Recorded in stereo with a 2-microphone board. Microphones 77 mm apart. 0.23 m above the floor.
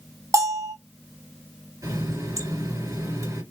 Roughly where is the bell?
Right.